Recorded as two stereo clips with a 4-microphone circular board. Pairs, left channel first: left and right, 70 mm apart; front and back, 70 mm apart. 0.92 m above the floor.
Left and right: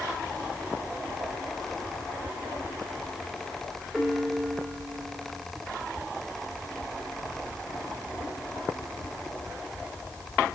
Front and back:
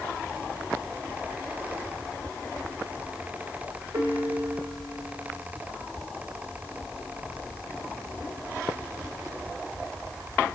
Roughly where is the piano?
Behind.